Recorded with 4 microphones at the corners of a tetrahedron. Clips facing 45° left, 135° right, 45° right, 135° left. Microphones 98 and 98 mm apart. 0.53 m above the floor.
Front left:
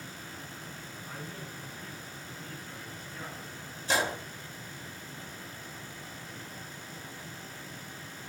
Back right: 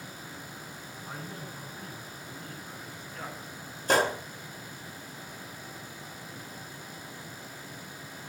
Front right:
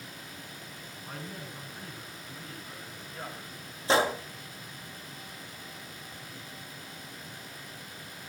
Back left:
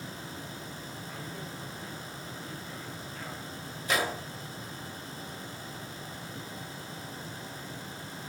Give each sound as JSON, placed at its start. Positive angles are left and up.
{"t": 1.0, "sound": "a man speaking", "azimuth_deg": -90, "distance_m": 7.0}
{"t": 3.9, "sound": "a gunshot", "azimuth_deg": -105, "distance_m": 1.9}